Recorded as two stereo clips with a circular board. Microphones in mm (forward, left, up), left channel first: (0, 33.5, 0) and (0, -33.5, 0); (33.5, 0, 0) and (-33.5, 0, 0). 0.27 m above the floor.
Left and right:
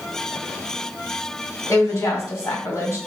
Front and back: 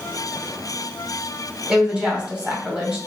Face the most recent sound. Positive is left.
turn(degrees=115)